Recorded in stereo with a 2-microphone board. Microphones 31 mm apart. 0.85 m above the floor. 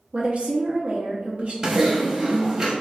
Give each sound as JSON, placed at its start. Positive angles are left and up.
{"t": 0.1, "sound": "a woman speaking", "side_deg": -45, "distance_m": 0.5}
{"t": 1.6, "sound": "typing on a keyboard", "side_deg": -20, "distance_m": 0.7}